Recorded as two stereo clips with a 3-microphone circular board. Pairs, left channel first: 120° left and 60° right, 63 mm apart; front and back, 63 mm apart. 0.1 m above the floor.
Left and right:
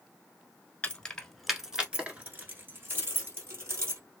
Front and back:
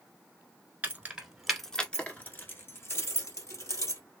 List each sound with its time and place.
0.8 s keys jangling: 165° left, 1.1 m; by 4.0 s 20° right, 2.5 m